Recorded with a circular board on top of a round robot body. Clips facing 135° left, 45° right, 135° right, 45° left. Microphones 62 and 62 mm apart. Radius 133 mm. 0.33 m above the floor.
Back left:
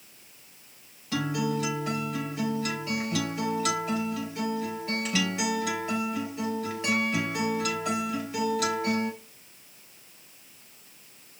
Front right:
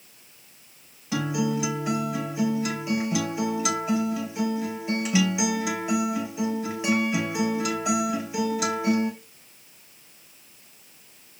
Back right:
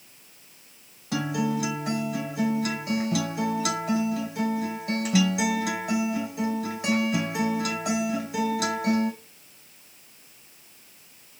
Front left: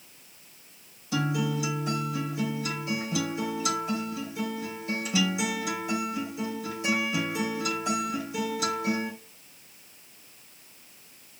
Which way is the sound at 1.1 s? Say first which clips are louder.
Front right 2 dB, back right 2 dB; 125° right.